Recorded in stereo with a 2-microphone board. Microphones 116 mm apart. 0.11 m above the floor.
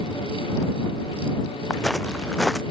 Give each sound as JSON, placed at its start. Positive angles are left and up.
{"t": 1.7, "sound": "footsteps", "side_deg": 5}